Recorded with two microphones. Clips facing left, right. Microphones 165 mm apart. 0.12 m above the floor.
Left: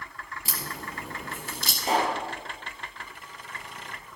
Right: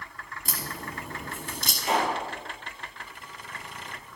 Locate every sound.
0.5 s a crack: 5° left (ahead or behind), 2.5 m
1.8 s a pop: 35° left (ahead or behind), 3 m